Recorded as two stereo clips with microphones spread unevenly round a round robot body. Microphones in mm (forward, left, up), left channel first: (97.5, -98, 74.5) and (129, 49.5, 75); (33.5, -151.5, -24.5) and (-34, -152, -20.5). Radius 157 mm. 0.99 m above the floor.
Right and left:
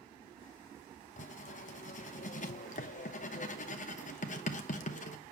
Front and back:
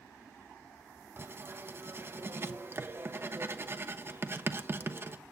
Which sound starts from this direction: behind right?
Writing, at 1.2 s.